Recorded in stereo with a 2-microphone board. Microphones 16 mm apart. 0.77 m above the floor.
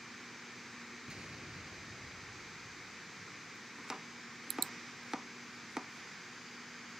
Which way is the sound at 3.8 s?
40° right (ahead or behind).